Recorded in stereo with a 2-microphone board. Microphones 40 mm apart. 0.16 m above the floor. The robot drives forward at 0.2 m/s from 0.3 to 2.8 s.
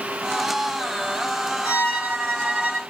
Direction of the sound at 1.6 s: 50° right (ahead or behind).